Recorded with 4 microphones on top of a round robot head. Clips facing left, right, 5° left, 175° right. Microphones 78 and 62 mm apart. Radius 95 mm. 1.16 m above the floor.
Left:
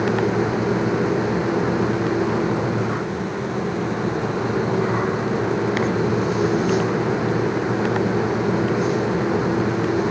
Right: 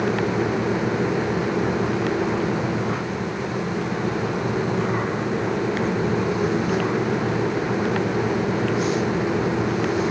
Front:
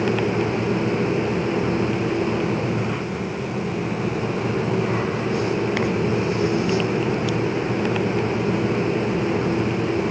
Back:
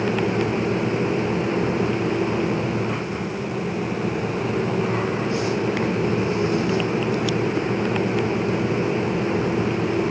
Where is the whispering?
No whispering in this recording.